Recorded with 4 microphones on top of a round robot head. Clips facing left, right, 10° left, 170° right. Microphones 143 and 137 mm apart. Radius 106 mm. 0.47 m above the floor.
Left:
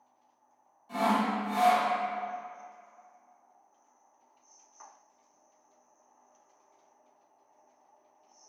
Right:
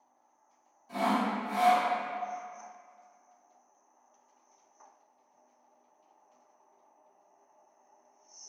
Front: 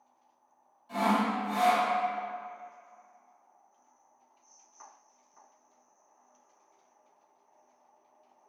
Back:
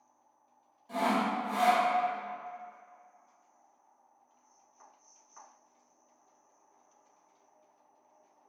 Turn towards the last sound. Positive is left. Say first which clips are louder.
# left 1 dB, front 2 dB
turn(degrees=-170)